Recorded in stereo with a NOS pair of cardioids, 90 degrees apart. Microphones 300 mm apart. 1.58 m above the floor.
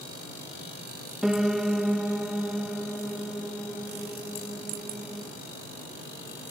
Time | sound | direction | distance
1.2 | a piano | straight ahead | 1.1 m